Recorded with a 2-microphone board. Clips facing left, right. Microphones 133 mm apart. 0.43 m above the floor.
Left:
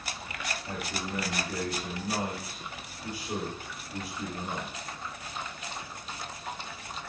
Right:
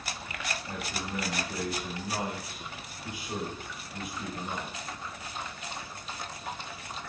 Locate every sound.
0.7 s a man speaking: 45° left (ahead or behind), 7.5 m